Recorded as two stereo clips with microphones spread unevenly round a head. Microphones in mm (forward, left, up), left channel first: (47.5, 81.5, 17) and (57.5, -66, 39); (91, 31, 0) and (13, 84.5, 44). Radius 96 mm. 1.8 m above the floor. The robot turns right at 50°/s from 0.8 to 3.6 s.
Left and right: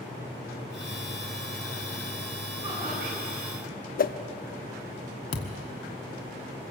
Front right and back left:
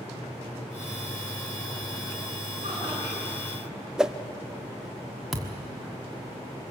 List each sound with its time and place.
2.6 s laughter: 155° right, 7.5 m; by 3.4 s 120° right, 7.5 m
4.0 s a whoosh: 60° left, 0.8 m
5.3 s a thud: 110° left, 1.5 m